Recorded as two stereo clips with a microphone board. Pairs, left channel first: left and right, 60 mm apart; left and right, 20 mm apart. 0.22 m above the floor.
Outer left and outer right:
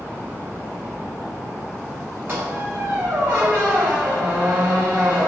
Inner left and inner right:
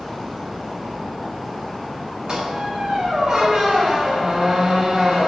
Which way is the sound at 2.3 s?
35° right (ahead or behind).